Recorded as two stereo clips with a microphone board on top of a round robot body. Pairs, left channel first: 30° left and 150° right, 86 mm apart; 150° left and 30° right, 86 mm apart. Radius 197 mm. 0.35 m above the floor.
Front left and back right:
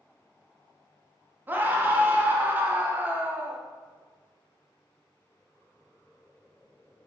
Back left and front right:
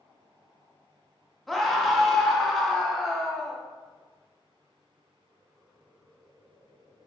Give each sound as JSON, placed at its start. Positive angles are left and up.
{"t": 1.5, "sound": "a scream", "azimuth_deg": -125, "distance_m": 0.8}